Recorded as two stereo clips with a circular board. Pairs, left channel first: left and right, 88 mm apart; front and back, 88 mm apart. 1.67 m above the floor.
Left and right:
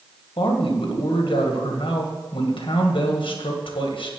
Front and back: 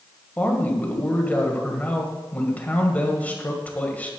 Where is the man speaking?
70° left, 1.9 m.